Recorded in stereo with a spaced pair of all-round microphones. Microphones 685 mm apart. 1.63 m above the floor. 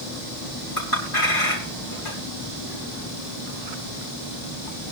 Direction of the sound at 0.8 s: 50° left (ahead or behind).